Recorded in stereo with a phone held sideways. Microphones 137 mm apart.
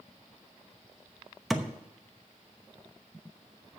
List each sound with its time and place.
1.5 s a thud: centre (ahead or behind), 0.9 m